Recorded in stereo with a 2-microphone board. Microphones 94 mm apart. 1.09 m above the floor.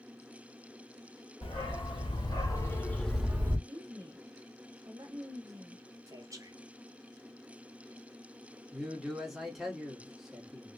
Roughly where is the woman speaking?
Right.